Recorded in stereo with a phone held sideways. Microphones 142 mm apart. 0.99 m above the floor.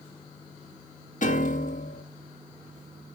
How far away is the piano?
About 0.9 m.